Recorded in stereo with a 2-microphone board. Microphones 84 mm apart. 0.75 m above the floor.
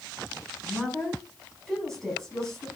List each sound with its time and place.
0.6 s a woman speaking: 5° left (ahead or behind), 7.5 m